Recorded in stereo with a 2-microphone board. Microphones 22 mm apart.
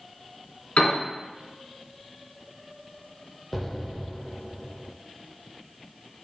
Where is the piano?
70° left (ahead or behind), 2 m.